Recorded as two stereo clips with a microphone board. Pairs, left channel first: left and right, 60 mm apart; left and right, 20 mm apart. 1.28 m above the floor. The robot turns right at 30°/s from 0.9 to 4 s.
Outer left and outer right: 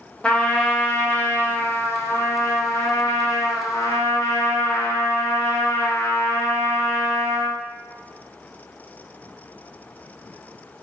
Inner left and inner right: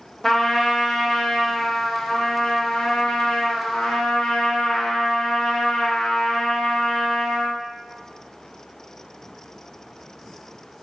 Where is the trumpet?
20° left, 0.7 m; by 7.6 s 110° left, 0.7 m.